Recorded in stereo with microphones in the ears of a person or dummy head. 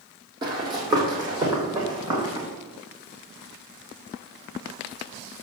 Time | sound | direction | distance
0.4 | running footsteps | 25° right (ahead or behind) | 3 m